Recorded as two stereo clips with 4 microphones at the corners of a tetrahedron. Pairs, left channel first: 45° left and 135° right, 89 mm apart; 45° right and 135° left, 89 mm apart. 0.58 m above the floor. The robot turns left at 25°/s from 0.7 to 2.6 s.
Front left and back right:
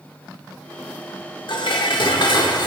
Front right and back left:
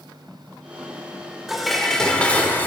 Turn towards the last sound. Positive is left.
turn(degrees=20)